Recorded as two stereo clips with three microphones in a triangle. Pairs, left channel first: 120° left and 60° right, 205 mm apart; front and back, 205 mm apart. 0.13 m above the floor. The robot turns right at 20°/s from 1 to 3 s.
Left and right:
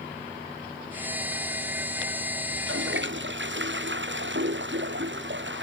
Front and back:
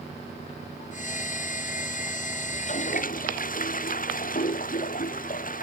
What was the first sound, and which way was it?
A toilet flushing, 55° right.